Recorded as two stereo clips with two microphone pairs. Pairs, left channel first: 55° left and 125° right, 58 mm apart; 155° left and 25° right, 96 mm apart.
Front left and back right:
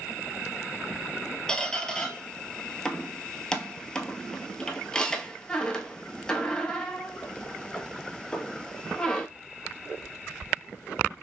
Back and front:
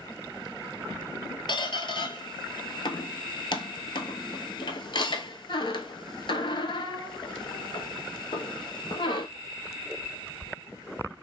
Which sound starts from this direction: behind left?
A squeak, at 1.5 s.